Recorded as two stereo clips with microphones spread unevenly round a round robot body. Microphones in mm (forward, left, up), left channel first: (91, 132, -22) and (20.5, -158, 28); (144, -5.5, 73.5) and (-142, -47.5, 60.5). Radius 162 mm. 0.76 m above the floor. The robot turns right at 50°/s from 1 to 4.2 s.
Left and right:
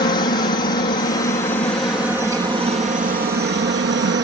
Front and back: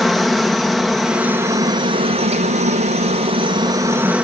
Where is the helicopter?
105° left; by 4.2 s 95° right.